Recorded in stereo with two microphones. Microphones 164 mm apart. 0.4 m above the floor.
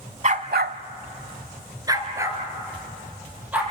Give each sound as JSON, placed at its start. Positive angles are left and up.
{"t": 0.2, "sound": "a dog barking", "side_deg": -45, "distance_m": 1.0}